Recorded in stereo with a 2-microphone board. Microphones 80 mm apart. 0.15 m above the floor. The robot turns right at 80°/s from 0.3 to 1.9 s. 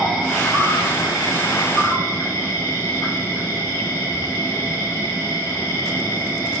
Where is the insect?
25° left, 4 m; by 6.6 s 155° left, 4 m.